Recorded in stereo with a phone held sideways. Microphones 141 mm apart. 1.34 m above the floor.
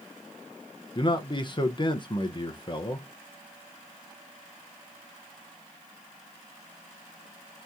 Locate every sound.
0.9 s a man speaking: 35° left (ahead or behind), 0.6 m